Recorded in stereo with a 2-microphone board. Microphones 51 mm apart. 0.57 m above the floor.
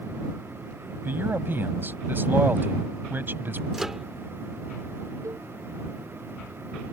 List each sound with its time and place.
1.1 s a man speaking: 45° right (ahead or behind)
3.7 s a microwave: 10° right (ahead or behind)
5.2 s a cowbell: 70° right (ahead or behind)